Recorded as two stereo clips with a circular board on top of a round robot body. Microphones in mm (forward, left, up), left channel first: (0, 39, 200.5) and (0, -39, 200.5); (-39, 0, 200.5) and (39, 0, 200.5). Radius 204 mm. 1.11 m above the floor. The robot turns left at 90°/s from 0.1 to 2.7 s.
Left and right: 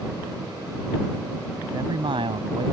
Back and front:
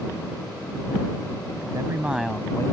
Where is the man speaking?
35° right; by 2.7 s 130° right.